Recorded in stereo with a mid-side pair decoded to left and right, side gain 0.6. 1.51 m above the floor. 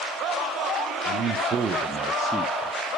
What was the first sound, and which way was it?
A man speaking, 50° right.